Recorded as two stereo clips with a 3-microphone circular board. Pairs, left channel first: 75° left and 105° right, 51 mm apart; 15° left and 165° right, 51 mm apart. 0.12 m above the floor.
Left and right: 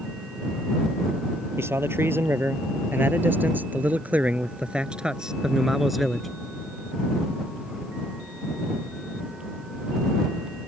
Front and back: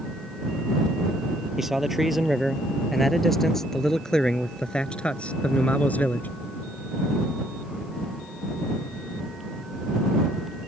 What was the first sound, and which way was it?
A man speaking, 80° right.